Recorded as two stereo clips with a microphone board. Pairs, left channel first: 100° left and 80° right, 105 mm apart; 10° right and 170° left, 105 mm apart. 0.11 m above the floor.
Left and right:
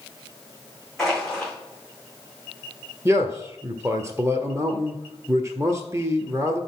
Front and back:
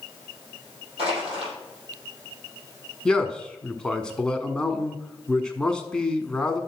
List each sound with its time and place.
1.0 s crushing: 170° right, 6 m
3.0 s a man speaking: 85° right, 1.2 m